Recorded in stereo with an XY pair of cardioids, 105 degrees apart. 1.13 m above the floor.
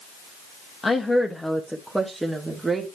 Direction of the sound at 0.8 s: 35° left.